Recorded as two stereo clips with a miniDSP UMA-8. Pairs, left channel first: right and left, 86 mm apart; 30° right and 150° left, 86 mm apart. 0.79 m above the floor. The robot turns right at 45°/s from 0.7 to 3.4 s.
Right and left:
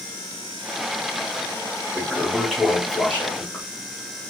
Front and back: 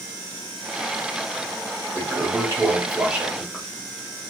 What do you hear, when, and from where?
1.9 s a toilet flushing: 160° left, 1.2 m; by 3.6 s 135° right, 1.2 m